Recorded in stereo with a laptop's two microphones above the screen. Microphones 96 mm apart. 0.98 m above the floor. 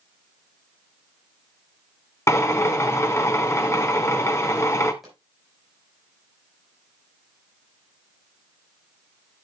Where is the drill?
25° left (ahead or behind), 1.4 m.